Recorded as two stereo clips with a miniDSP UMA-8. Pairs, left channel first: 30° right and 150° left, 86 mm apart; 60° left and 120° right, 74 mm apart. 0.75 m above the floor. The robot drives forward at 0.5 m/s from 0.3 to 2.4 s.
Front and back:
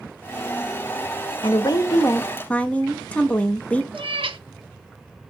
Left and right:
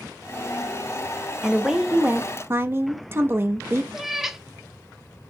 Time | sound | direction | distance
1.4 | a woman speaking | 30° right | 0.7 m
3.9 | a cat meowing | 155° left | 0.5 m